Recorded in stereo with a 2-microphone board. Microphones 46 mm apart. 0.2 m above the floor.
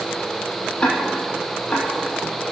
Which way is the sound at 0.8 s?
20° left (ahead or behind).